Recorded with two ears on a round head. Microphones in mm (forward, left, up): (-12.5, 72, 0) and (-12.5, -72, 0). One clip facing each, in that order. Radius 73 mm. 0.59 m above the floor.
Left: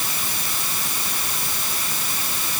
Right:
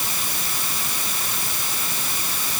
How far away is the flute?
I don't hear a flute.